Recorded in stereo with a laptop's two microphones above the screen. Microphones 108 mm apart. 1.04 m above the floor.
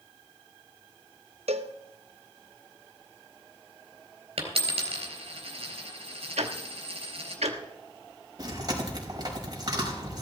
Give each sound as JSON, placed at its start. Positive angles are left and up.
{"t": 1.5, "sound": "a cowbell", "side_deg": -75, "distance_m": 0.7}
{"t": 4.4, "sound": "a dropped coin", "side_deg": -65, "distance_m": 3.5}
{"t": 6.4, "sound": "ticking", "side_deg": -80, "distance_m": 1.2}
{"t": 8.4, "sound": "chewing", "side_deg": -40, "distance_m": 4.5}